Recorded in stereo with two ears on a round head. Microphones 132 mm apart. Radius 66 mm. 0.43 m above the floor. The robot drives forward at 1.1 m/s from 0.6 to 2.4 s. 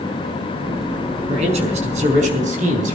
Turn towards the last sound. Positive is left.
turn(degrees=-55)  # may be behind; listen again after turning